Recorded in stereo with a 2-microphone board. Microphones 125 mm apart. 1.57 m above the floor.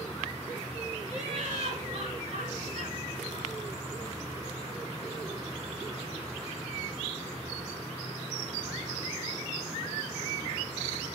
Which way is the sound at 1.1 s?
75° right (ahead or behind).